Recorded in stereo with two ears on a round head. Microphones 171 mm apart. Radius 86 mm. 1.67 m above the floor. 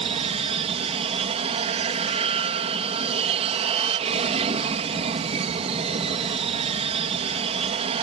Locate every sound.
0.0 s an aircraft: 30° right (ahead or behind)